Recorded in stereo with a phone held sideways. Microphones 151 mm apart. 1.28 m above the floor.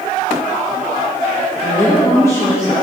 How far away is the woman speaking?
About 1.0 m.